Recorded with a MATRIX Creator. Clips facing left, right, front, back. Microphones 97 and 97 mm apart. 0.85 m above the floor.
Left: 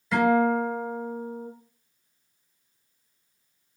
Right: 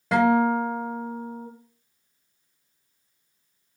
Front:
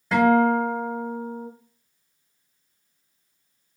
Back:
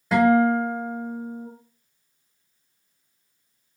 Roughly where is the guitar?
Right.